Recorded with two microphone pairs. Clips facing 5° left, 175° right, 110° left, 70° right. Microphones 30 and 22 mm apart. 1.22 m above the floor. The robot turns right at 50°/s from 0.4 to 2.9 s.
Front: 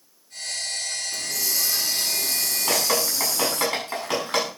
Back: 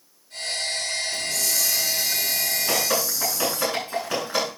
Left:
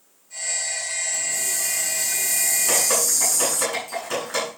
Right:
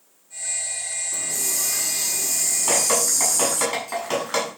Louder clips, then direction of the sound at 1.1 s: Back 2 dB, left 1 dB; 75° right.